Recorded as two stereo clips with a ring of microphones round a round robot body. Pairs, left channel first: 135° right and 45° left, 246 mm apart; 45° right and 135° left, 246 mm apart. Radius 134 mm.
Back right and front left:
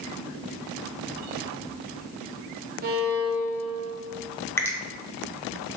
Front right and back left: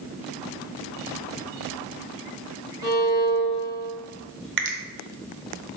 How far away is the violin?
About 1.0 m.